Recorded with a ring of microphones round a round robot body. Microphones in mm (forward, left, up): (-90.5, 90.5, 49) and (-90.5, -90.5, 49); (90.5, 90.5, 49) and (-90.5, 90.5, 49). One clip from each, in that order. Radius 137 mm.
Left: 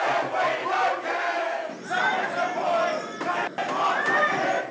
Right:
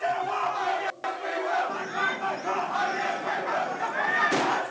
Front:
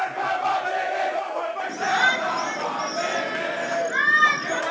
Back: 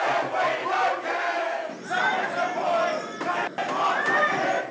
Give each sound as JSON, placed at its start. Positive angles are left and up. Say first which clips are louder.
{"t": 1.7, "sound": "a shout", "louder": "left 3 dB, front 8 dB", "azimuth_deg": -5}